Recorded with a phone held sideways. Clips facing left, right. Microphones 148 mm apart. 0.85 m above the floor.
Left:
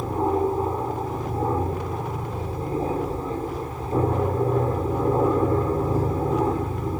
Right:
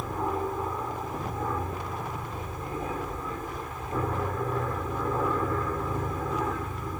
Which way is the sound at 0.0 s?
30° left (ahead or behind).